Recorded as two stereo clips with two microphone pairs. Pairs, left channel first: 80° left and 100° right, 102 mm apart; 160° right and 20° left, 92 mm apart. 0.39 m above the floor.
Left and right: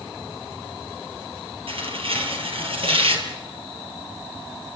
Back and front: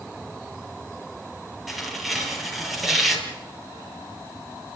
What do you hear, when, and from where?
1.7 s tearing paper: 70° right, 4.5 m